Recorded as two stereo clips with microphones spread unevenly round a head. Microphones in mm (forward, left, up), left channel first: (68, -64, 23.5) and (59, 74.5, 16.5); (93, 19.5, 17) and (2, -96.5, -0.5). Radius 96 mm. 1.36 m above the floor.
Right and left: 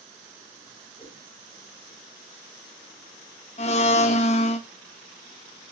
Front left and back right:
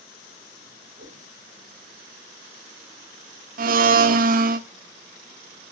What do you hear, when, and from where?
1.0 s a whoosh: 145° right, 4.5 m
3.6 s a blender: 125° right, 1.2 m